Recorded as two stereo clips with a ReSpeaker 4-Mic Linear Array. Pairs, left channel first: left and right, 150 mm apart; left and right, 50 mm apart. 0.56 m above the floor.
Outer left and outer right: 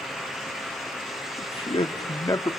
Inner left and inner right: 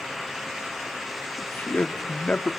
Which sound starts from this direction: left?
A man speaking, at 1.4 s.